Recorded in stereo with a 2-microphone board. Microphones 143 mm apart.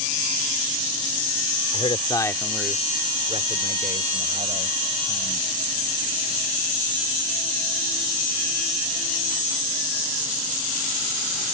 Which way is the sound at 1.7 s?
40° left (ahead or behind).